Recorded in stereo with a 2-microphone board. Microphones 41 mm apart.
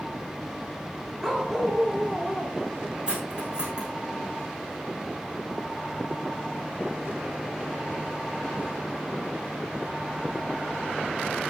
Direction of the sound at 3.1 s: 20° right (ahead or behind).